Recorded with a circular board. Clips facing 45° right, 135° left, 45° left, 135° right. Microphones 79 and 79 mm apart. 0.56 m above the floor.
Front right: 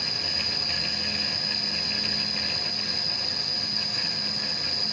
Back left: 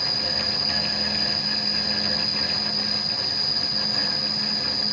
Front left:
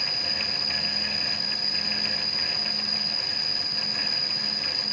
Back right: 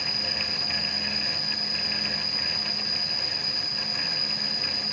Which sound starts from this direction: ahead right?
An insect, at 0.0 s.